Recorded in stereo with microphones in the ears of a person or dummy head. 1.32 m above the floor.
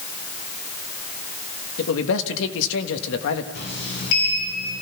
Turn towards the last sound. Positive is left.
turn(degrees=65)  # may be behind; listen again after turning